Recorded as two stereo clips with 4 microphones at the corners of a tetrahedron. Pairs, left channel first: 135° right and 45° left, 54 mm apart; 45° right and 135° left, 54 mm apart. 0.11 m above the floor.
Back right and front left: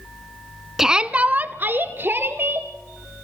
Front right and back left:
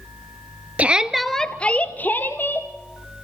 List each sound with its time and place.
0.8 s a shout: 120° left, 1.2 m; by 2.7 s straight ahead, 3 m